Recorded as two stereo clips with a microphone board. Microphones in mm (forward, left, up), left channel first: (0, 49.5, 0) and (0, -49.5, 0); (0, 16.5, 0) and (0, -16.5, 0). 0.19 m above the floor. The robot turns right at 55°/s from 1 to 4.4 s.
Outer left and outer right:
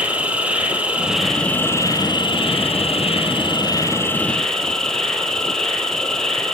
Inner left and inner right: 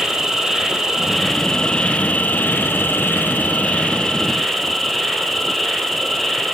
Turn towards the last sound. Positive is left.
turn(degrees=175)